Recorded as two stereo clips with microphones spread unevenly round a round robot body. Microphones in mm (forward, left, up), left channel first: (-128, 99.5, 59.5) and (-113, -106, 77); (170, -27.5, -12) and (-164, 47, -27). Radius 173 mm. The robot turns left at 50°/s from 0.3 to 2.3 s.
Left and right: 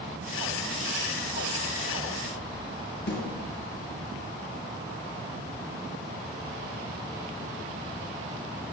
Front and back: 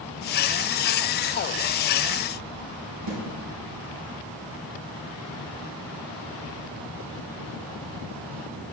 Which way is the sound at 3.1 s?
125° left.